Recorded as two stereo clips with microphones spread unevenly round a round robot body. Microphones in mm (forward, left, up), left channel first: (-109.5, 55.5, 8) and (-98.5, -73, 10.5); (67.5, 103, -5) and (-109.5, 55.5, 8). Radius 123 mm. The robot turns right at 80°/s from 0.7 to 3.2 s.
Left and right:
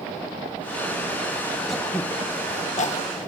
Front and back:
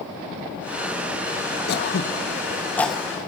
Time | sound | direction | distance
1.7 | throat clearing | 5° left | 1.1 m